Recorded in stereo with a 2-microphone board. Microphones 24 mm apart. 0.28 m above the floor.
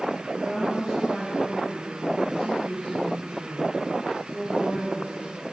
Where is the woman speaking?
45° right (ahead or behind), 4 m; by 5.4 s 60° right (ahead or behind), 4 m.